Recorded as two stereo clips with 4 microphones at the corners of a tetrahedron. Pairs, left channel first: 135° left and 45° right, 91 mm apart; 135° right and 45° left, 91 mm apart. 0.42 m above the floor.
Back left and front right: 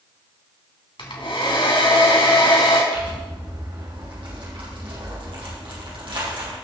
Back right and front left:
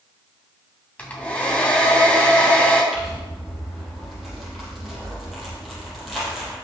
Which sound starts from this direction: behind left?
A hair dryer, at 1.0 s.